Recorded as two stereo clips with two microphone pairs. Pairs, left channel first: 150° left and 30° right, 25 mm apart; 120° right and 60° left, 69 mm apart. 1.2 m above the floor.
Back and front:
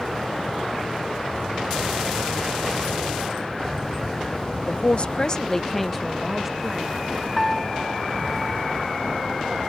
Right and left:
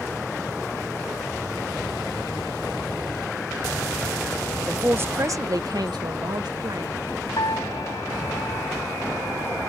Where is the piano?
130° right.